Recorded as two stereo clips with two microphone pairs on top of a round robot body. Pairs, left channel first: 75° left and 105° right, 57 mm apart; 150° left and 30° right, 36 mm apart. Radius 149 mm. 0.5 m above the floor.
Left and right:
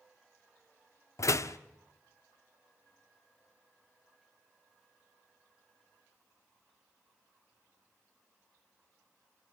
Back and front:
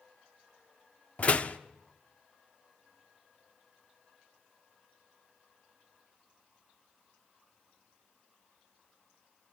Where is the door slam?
95° left, 1.2 m.